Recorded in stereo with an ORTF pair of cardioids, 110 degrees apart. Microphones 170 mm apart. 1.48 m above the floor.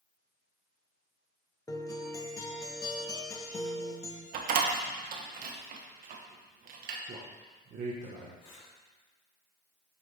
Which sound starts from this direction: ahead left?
Breathing, at 8.4 s.